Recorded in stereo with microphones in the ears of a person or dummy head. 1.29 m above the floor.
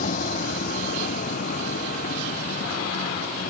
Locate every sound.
0.0 s a vehicle: 45° left (ahead or behind)